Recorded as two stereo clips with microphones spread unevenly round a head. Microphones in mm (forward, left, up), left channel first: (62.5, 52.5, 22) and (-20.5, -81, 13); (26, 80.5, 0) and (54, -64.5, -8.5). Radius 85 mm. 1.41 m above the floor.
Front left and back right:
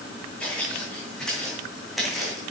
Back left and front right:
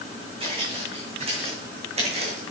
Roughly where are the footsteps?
Ahead right.